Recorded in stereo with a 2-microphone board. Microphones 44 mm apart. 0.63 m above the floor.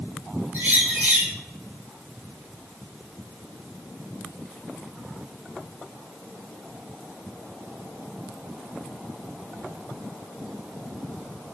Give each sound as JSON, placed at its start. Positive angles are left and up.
{"t": 0.5, "sound": "a bird", "side_deg": -45, "distance_m": 2.0}